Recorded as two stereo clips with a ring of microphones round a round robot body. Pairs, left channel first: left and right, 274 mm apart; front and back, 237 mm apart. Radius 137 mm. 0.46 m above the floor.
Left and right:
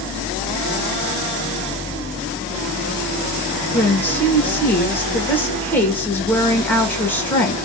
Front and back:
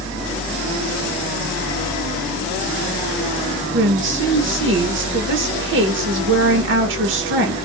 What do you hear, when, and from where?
3.7 s a woman speaking: 170° left, 1.2 m